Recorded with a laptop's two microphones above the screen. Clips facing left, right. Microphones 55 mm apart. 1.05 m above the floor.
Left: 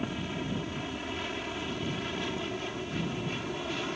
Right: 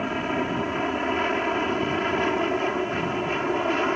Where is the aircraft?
45° right (ahead or behind).